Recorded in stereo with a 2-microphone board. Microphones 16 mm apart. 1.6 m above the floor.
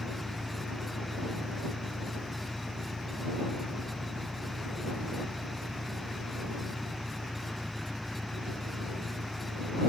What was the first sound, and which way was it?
An engine running, 50° right (ahead or behind).